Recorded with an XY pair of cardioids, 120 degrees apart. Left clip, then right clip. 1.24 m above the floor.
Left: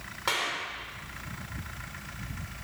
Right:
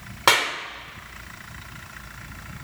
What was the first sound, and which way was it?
A clap, 60° right.